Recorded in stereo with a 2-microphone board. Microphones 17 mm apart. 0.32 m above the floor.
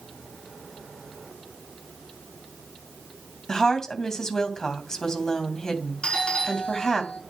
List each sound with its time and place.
3.5 s a woman speaking: 35° left (ahead or behind), 2.5 m
6.0 s a doorbell: 65° left (ahead or behind), 6 m